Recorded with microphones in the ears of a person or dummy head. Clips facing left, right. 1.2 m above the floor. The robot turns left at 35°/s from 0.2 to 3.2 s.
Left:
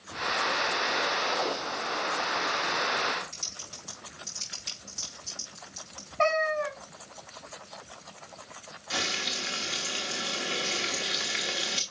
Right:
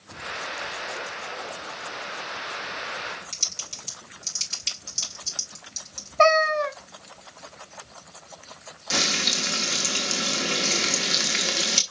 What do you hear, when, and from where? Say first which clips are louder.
3.3 s typing on a keyboard: right 1 dB; 40° right (ahead or behind), 3.5 m
6.2 s a cat meowing: right 6 dB; 60° right (ahead or behind), 0.8 m
8.9 s frying: right 6 dB; 60° right (ahead or behind), 1.3 m